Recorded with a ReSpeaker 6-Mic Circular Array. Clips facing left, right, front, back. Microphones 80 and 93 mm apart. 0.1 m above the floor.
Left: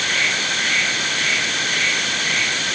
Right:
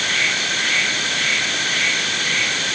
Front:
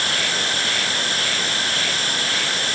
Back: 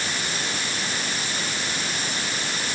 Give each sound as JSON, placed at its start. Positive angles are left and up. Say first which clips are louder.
{"t": 0.0, "sound": "an insect", "louder": "even, front 4 dB", "azimuth_deg": 0}